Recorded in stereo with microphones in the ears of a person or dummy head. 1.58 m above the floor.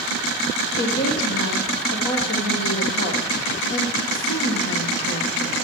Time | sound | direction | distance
0.8 | a woman speaking | 55° left (ahead or behind) | 1.7 m